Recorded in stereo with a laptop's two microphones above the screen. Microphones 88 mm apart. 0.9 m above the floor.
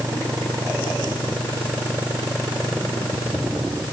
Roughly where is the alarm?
I don't hear an alarm.